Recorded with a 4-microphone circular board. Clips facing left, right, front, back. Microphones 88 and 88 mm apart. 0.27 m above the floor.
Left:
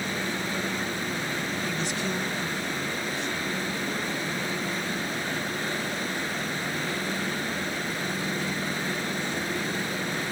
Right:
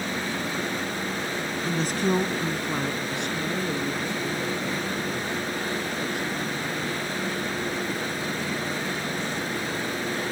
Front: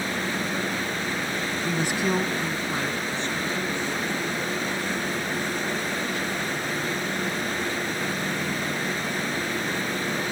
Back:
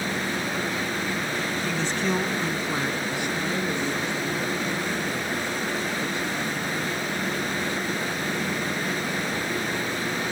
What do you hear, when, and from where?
1.6 s a woman speaking: 60° right; by 7.0 s 110° right